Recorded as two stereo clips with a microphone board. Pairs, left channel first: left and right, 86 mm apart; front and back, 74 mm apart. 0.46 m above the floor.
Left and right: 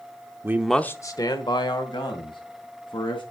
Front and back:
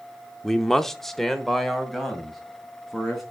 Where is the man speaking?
85° right, 0.7 m; by 3.2 s 90° left, 3.5 m.